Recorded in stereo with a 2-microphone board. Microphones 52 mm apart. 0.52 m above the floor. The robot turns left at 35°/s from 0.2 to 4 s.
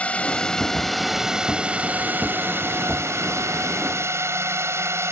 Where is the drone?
30° left; by 5.1 s 105° right.